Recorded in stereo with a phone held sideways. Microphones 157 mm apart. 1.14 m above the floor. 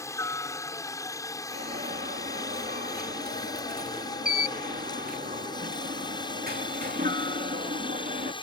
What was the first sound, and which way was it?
A helicopter, 20° left (ahead or behind).